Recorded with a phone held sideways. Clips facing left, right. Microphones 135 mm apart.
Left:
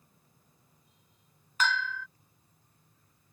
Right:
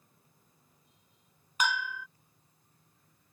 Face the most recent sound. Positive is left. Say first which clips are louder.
# left 1 dB
turn(degrees=-15)  # may be behind; listen again after turning